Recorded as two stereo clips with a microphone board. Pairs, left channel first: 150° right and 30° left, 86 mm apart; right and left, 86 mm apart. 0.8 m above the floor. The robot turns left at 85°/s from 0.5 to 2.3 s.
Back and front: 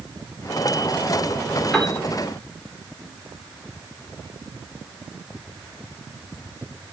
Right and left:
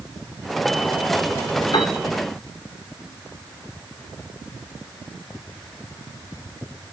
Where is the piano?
65° right, 2.5 m; by 2.0 s 85° right, 2.5 m.